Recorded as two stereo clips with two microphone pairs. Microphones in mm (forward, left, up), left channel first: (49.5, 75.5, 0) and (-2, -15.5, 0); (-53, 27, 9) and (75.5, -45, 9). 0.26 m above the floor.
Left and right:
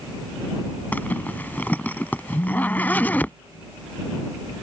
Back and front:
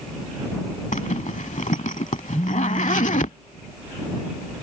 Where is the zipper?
130° left.